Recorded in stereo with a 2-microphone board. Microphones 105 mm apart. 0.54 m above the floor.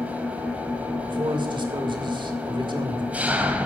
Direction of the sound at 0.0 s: 15° right (ahead or behind).